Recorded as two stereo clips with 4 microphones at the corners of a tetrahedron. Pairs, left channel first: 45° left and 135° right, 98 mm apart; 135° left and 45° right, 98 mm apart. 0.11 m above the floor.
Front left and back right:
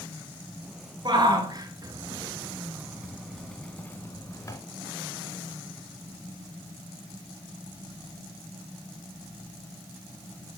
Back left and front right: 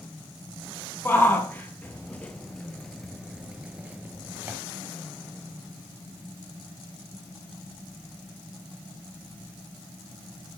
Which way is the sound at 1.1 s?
160° right.